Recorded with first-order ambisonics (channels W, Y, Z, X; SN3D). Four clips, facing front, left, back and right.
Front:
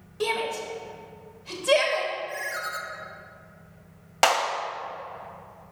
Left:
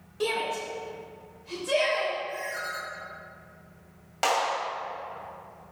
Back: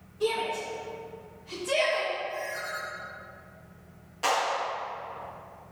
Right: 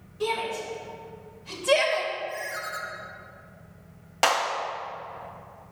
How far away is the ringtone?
About 1.0 m.